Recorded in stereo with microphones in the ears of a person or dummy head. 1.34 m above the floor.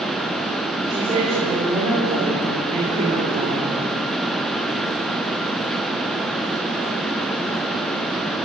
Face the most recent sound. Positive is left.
turn(degrees=-25)  # may be behind; listen again after turning